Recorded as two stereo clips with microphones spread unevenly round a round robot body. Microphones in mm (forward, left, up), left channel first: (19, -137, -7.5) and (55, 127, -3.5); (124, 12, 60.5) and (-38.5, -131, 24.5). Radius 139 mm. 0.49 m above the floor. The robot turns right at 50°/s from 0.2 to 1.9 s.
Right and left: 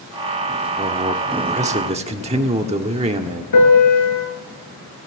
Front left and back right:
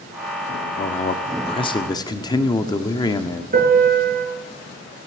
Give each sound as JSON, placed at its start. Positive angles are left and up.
{"t": 0.8, "sound": "a man speaking", "azimuth_deg": 50, "distance_m": 1.4}
{"t": 3.5, "sound": "a piano", "azimuth_deg": -95, "distance_m": 4.5}